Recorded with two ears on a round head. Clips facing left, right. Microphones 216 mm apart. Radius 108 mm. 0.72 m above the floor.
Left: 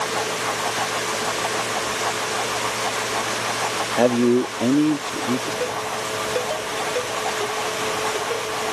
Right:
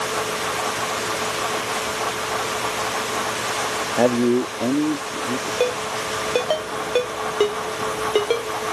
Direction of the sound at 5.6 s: 80° right.